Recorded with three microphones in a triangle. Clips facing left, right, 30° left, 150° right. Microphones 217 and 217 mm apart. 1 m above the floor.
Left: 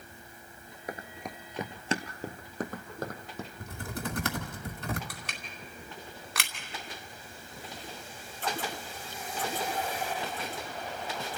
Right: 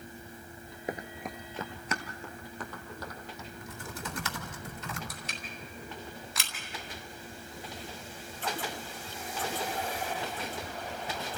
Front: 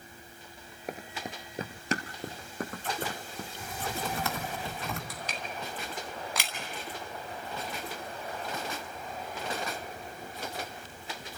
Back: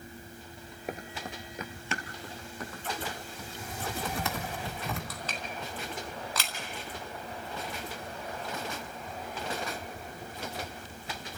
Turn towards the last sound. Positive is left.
turn(degrees=105)